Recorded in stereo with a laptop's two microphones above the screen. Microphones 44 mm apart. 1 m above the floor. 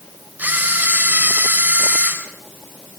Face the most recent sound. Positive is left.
turn(degrees=-40)  # may be behind; listen again after turning